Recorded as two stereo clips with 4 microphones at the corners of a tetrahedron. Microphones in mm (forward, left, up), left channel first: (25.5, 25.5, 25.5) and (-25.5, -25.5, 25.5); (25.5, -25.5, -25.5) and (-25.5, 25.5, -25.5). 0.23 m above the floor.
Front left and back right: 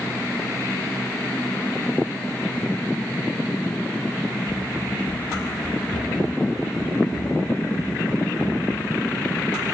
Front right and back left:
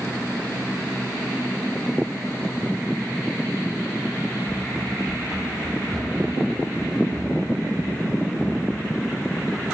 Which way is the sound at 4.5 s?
45° left.